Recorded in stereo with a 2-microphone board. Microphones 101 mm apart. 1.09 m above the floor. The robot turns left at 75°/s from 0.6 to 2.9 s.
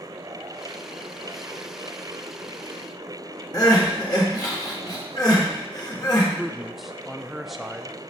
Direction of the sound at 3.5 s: 40° left (ahead or behind).